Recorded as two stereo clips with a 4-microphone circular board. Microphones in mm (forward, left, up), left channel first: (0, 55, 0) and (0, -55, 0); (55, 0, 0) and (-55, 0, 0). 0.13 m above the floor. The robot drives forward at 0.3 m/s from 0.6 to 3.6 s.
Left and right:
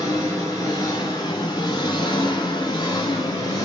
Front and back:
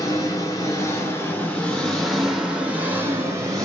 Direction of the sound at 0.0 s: 45° left.